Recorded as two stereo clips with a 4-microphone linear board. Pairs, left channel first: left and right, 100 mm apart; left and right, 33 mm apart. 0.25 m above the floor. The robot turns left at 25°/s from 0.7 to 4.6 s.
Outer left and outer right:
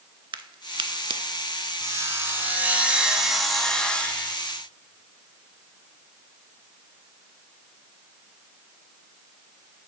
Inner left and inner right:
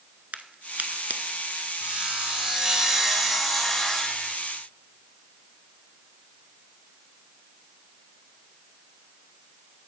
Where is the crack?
55° right (ahead or behind), 0.5 m; by 1.2 s 70° right (ahead or behind), 0.5 m.